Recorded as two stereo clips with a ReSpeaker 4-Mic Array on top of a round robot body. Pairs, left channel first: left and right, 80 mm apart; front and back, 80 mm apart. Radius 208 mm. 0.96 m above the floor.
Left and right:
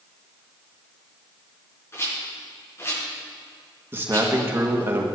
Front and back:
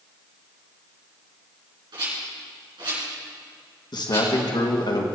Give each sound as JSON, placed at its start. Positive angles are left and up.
{"t": 1.9, "sound": "a rattle", "azimuth_deg": 150, "distance_m": 5.5}
{"t": 3.9, "sound": "a man speaking", "azimuth_deg": -25, "distance_m": 1.9}